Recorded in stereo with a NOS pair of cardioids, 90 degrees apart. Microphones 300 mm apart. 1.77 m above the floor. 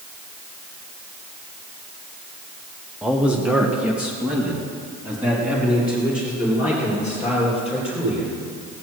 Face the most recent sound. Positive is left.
turn(degrees=-5)